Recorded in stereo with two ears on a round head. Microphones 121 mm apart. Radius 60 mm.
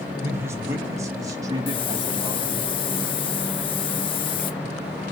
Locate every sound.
0.2 s a man speaking: 20° right (ahead or behind), 5 m; by 2.7 s 35° right (ahead or behind), 4.5 m
1.7 s a hiss: 40° left (ahead or behind), 1.2 m